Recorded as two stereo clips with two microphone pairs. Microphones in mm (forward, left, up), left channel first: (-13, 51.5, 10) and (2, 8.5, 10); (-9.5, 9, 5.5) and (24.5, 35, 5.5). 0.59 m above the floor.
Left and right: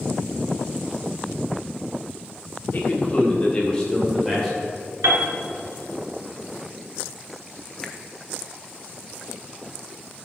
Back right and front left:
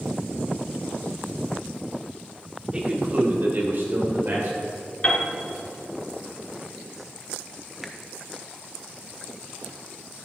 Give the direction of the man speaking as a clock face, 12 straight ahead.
9 o'clock.